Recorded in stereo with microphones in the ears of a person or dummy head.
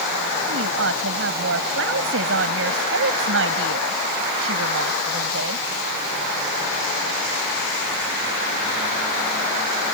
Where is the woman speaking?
80° right.